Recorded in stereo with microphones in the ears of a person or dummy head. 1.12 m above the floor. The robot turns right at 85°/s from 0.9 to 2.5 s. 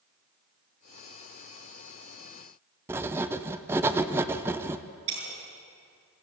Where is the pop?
I don't hear a pop.